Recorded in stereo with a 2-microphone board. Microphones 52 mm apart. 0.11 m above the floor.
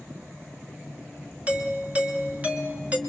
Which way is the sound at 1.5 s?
25° right (ahead or behind).